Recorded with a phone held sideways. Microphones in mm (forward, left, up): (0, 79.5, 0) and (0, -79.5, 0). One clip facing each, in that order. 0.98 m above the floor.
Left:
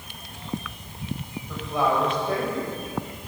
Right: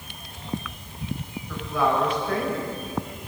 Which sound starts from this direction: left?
A woman speaking, at 1.5 s.